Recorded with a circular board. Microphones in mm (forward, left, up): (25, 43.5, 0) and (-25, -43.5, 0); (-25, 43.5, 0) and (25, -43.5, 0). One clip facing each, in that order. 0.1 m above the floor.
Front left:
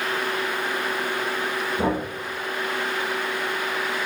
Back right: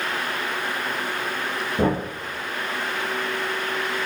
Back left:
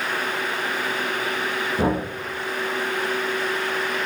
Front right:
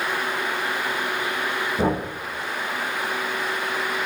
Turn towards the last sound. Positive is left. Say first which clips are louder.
# back right 3 dB, back left 1 dB
turn(degrees=-160)